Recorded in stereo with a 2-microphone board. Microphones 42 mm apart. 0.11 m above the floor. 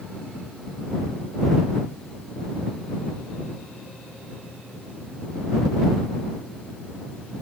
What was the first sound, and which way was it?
Only background noise.